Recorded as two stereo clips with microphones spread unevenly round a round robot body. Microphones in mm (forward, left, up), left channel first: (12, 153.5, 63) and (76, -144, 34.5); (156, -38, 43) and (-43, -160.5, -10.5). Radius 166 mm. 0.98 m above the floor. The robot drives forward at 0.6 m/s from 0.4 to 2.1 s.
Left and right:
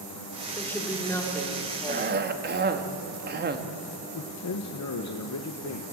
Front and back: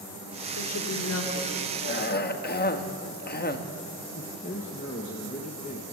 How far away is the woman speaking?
About 3 m.